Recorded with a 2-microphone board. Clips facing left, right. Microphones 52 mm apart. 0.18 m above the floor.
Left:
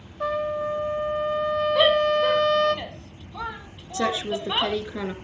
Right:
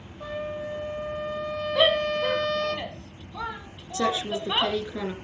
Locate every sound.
0.2 s a trumpet: 85° left, 1.1 m
1.8 s a shout: 5° left (ahead or behind), 1.5 m
3.9 s a woman speaking: 25° left (ahead or behind), 3 m